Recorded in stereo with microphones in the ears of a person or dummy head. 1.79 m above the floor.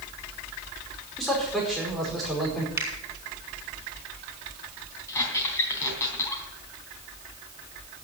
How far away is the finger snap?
About 4.5 m.